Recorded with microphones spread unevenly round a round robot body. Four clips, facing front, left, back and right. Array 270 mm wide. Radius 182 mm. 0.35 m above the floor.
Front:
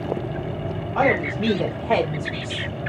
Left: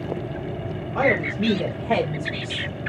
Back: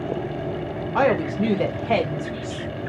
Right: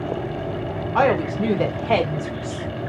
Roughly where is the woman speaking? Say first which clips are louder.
Right 3 dB, back 1 dB; behind right.